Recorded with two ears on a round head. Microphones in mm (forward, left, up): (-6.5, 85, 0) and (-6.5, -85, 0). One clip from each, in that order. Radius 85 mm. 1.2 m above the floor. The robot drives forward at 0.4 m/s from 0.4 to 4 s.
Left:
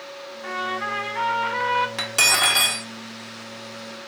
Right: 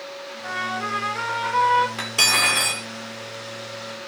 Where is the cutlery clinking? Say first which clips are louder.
Even; 30° left (ahead or behind), 2.0 m; by 2.9 s 35° left (ahead or behind), 1.7 m.